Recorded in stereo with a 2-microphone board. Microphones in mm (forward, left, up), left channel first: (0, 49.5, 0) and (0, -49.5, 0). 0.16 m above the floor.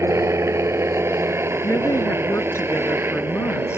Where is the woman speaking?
25° left (ahead or behind).